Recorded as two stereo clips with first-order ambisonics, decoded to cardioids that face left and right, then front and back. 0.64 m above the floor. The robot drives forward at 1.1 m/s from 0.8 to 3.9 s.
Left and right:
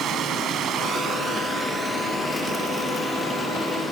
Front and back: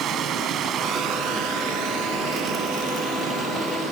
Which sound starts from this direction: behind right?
Running water, at 0.0 s.